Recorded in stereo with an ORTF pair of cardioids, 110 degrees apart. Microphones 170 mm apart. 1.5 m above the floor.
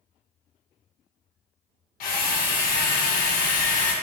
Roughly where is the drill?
Ahead left.